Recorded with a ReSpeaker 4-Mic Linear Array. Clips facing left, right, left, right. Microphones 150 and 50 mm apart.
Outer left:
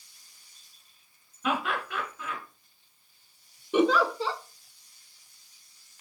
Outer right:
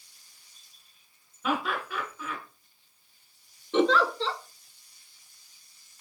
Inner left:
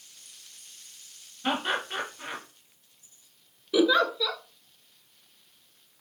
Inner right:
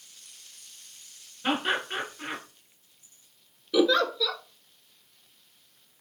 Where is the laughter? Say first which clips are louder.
Even, inner right 1 dB; 5° right (ahead or behind), 1.4 m.